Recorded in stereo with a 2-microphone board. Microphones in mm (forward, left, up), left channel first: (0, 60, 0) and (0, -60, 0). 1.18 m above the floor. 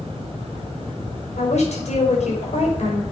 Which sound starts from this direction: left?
A woman speaking, at 1.4 s.